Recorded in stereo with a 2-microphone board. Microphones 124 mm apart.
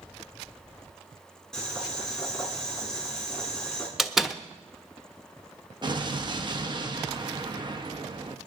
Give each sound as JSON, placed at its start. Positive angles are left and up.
{"t": 1.5, "sound": "boiling", "side_deg": 5, "distance_m": 4.5}
{"t": 4.0, "sound": "a door slam", "side_deg": 0, "distance_m": 1.0}
{"t": 5.8, "sound": "an explosion", "side_deg": -35, "distance_m": 1.1}